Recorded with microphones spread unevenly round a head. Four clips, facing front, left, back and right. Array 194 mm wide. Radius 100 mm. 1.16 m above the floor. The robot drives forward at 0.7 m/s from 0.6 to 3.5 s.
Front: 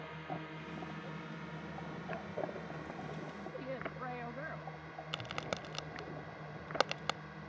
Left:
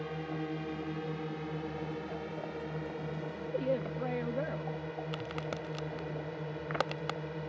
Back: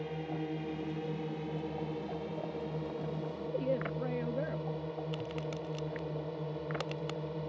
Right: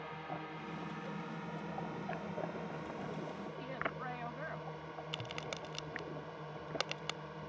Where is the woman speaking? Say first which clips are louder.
Left 13 dB, back 11 dB; 130° left.